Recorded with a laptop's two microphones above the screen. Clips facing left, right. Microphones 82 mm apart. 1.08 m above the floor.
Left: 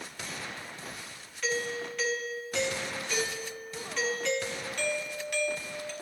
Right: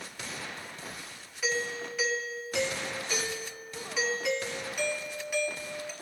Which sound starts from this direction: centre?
A doorbell, at 1.4 s.